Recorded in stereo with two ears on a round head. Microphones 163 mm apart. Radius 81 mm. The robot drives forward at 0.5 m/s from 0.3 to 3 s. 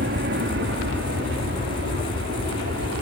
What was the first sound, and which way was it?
An aircraft, 60° right (ahead or behind).